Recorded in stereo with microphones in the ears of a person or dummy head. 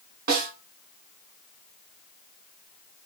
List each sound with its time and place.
0.3 s a snare drum: 45° right (ahead or behind), 2 m